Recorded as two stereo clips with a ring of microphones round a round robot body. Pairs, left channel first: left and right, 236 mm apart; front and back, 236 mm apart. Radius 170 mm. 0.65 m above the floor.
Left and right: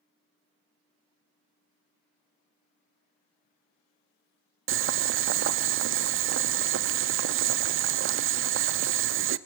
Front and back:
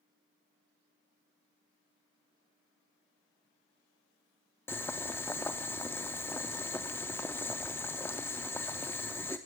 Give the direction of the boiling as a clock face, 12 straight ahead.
3 o'clock.